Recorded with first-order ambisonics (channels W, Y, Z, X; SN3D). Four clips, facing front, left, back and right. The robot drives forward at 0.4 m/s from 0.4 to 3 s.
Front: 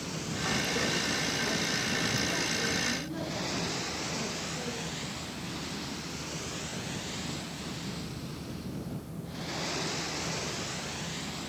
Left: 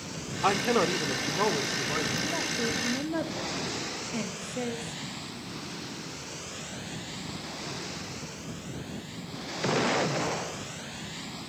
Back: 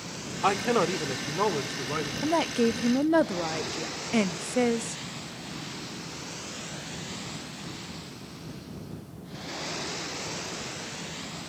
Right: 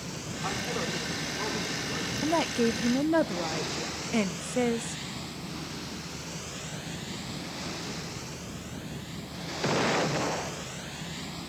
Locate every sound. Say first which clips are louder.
0.4 s a man speaking: left 8 dB, back 6 dB; 145° left, 2.5 m; by 2.1 s 150° left, 3 m
2.2 s a woman speaking: right 4 dB, back 6 dB; 145° right, 0.8 m; by 5.0 s 155° right, 1.0 m